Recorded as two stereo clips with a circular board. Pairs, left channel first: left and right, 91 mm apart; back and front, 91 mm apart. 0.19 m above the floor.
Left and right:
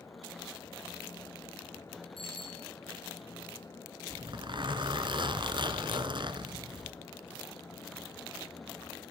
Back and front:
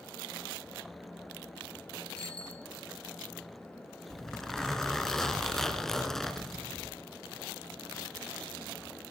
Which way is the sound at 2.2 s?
100° left.